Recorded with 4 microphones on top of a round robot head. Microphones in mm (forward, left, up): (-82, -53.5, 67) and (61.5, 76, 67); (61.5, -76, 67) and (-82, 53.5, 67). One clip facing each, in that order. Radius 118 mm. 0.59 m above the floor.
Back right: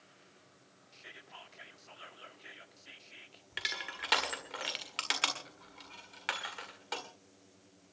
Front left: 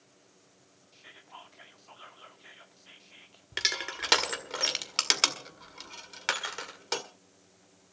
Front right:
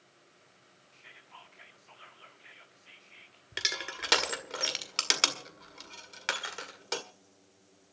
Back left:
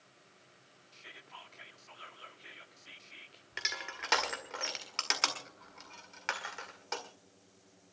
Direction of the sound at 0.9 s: 160° left.